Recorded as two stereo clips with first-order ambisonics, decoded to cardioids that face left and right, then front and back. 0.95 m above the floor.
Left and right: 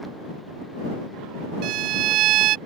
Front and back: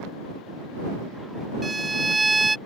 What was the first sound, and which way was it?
A violin, 100° right.